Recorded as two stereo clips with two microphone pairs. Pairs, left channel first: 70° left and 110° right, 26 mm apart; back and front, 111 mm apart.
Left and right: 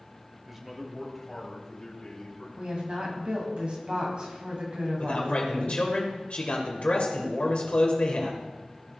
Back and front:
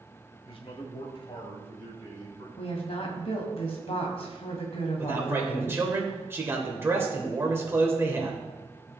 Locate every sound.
0.5 s a man speaking: 175° left, 1.3 m; by 2.5 s 135° left, 3 m
2.6 s a woman speaking: 160° right, 2 m
5.0 s a man speaking: 60° left, 1.8 m